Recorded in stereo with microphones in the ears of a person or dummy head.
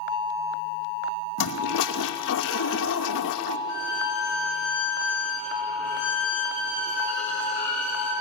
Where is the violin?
60° left (ahead or behind), 9.5 m.